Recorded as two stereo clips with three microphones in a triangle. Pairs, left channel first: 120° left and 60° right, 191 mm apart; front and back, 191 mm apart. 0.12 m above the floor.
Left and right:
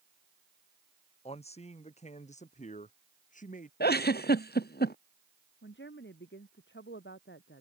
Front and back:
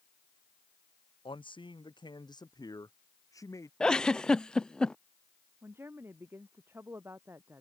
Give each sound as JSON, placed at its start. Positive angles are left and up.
{"t": 1.2, "sound": "a man speaking", "azimuth_deg": 65}
{"t": 3.8, "sound": "a giggle", "azimuth_deg": 85}
{"t": 5.6, "sound": "a woman speaking", "azimuth_deg": 100}